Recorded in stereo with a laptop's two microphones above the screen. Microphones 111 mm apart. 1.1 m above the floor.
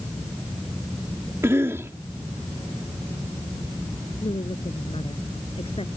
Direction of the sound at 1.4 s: 25° right (ahead or behind).